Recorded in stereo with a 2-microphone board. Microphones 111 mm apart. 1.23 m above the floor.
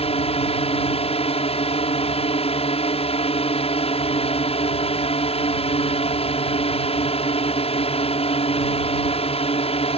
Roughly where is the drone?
Left.